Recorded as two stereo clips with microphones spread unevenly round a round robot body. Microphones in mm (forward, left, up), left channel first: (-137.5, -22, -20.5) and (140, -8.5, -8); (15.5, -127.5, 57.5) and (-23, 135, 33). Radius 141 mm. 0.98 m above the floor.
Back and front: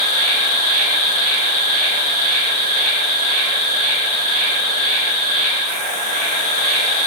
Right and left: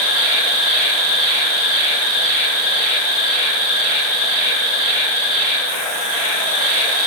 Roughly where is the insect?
Behind left.